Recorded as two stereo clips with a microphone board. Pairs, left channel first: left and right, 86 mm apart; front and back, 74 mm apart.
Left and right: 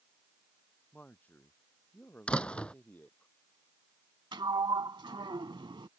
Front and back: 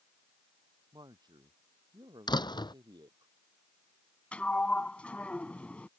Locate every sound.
0.9 s a man speaking: 160° left
2.3 s a door slam: 15° left
4.3 s a sliding door: 70° right